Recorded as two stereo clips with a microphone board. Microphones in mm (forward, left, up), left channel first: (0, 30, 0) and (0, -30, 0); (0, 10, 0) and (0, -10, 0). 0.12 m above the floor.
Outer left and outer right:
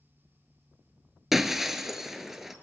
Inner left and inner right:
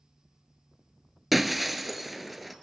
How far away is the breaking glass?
About 1.0 m.